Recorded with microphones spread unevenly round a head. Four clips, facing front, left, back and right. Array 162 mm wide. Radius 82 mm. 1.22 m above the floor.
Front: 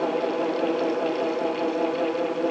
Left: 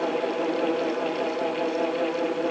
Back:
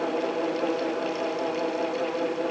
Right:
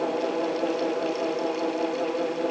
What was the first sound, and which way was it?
Only background noise.